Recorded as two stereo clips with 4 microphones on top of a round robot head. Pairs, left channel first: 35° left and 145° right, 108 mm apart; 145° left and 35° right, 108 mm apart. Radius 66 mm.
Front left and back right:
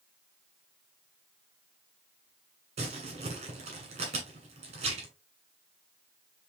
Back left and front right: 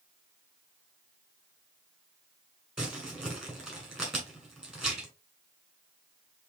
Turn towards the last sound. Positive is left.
turn(degrees=-120)